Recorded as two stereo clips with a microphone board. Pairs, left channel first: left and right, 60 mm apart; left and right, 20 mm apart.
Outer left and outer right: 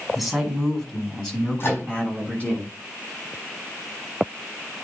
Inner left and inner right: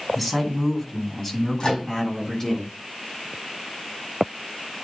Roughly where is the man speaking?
Centre.